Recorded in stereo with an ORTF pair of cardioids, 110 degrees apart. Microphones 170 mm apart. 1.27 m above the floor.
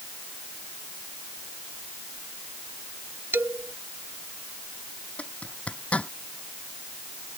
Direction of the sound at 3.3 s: 15° right.